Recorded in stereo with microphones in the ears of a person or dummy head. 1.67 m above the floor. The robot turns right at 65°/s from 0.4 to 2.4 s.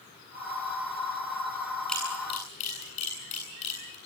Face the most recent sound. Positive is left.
turn(degrees=35)  # may be behind; listen again after turning